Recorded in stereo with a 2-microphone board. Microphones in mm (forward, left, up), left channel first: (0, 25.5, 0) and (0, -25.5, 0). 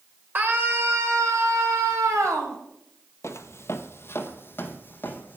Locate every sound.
0.3 s a scream: 35° right (ahead or behind), 2.5 m; by 2.6 s 75° right (ahead or behind), 4 m
3.2 s footsteps: 60° left (ahead or behind), 0.9 m; by 5.4 s 35° left (ahead or behind), 1.9 m